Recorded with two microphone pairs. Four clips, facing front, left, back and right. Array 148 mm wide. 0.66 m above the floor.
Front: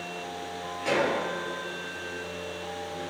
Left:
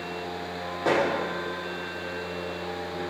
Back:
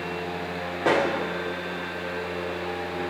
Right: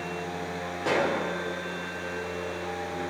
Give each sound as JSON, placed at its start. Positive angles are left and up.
{"t": 0.8, "sound": "a pop", "azimuth_deg": 160, "distance_m": 0.9}